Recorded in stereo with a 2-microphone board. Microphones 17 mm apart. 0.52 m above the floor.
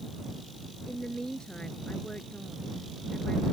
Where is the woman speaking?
55° left (ahead or behind).